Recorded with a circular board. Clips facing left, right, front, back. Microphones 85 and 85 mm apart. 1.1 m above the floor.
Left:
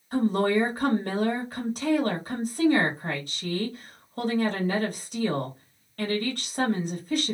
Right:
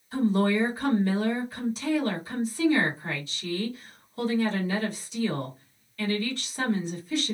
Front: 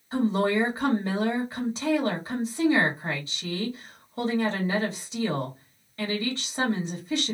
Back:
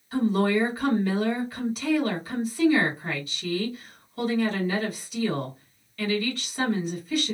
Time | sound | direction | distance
0.1 | a woman speaking | 60° left | 1.3 m